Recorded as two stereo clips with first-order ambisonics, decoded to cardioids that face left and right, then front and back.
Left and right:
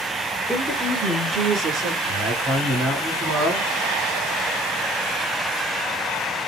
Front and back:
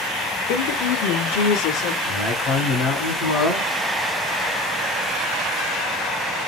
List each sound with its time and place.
0.5 s a woman speaking: 5° left, 1.4 m; by 1.9 s 40° right, 1.4 m
2.0 s a man speaking: 20° right, 2.5 m